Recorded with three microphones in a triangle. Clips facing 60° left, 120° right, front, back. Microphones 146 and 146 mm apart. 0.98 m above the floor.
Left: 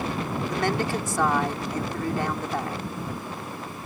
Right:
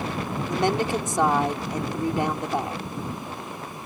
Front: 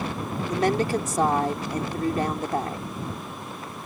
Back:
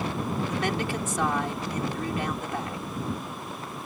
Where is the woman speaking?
50° right.